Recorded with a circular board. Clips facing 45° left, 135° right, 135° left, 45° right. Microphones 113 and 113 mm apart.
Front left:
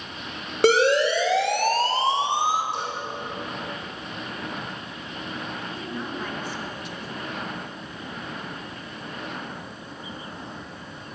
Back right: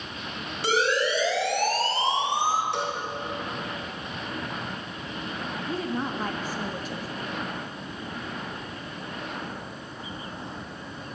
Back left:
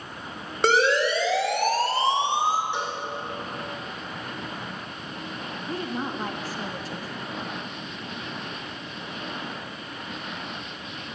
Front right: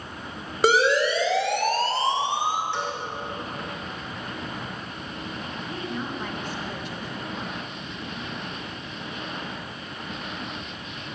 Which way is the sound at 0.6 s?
40° left.